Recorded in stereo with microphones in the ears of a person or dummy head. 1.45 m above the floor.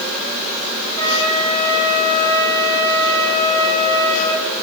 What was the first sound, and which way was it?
A flute, 85° right.